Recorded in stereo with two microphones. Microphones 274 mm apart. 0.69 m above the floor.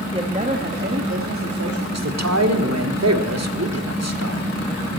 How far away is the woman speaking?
About 1.0 m.